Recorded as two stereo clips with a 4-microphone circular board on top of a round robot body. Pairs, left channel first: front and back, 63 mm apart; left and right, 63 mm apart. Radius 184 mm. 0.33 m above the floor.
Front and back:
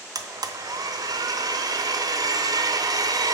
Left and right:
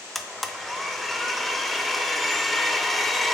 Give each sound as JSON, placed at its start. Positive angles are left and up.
{"t": 0.1, "sound": "a blender", "azimuth_deg": 180, "distance_m": 0.5}